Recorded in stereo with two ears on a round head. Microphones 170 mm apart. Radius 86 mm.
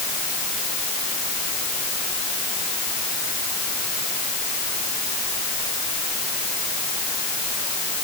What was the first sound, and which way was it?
Only background noise.